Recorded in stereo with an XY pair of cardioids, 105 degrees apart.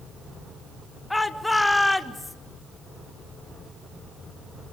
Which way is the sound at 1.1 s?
10° left.